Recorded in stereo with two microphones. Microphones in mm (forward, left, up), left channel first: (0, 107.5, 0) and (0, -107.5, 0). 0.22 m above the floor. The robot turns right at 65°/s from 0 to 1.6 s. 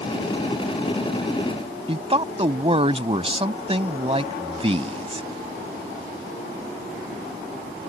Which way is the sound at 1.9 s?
25° right (ahead or behind).